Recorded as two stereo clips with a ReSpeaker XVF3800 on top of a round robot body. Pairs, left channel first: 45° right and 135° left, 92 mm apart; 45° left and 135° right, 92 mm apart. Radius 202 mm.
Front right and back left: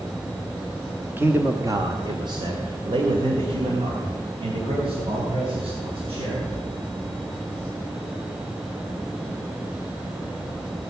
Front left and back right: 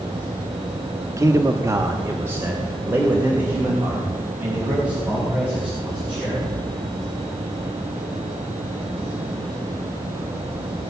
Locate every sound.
1.2 s a man speaking: 165° right, 1.3 m; by 6.5 s 145° left, 5.5 m